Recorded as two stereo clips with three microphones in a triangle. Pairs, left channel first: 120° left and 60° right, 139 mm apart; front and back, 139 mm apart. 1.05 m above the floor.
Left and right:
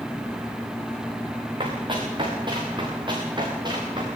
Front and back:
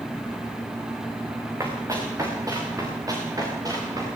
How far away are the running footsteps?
About 6.5 m.